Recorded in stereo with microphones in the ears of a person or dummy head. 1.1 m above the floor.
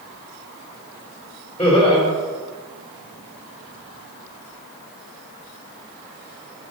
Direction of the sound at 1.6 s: 10° left (ahead or behind).